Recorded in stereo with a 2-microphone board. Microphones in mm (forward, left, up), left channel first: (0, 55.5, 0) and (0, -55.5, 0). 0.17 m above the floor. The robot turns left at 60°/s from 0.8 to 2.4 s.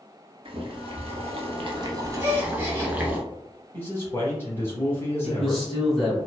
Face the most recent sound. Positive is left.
turn(degrees=0)  # may be behind; listen again after turning